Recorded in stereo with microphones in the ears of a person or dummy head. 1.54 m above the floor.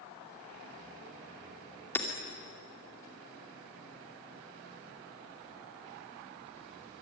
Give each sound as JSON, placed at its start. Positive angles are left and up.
{"t": 1.9, "sound": "hammering", "side_deg": 10, "distance_m": 2.5}